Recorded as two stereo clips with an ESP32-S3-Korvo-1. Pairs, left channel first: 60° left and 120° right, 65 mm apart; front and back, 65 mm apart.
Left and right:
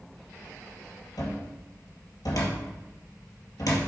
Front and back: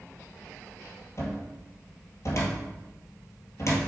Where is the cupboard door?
45° left, 2.5 m.